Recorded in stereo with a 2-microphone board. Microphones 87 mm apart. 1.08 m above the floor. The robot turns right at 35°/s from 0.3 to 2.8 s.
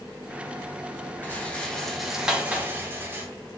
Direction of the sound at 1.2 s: 155° left.